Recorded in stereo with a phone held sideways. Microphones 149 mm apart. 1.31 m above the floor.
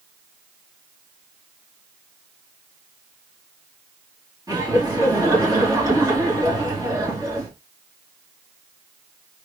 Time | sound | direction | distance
4.5 | laughter | 25° right (ahead or behind) | 2.5 m